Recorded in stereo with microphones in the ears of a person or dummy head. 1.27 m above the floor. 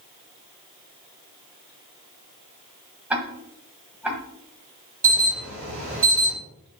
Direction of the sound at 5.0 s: 45° right (ahead or behind).